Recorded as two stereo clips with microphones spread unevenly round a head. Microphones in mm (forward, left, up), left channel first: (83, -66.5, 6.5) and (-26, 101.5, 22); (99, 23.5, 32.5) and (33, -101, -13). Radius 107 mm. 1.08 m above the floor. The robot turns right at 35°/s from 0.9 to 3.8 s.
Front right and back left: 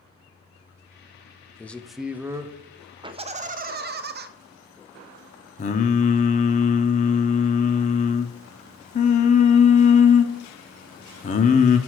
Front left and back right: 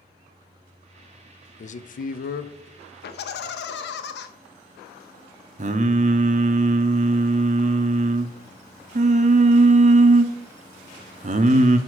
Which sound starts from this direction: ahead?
A man speaking, at 1.6 s.